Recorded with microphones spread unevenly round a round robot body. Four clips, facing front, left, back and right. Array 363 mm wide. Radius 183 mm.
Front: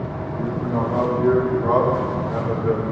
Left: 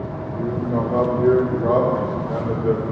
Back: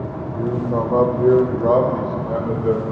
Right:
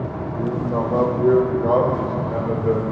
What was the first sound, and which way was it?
A man speaking, 170° right.